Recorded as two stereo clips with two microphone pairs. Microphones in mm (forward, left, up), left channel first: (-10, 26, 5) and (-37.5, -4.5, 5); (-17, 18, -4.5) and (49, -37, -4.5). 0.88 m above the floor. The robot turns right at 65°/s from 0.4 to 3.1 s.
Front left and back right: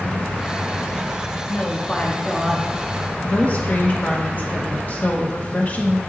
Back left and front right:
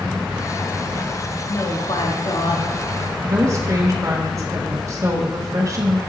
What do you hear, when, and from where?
1.5 s a woman speaking: 80° left, 1.2 m; by 2.7 s 160° left, 1.2 m
3.2 s a woman speaking: 5° left, 1.4 m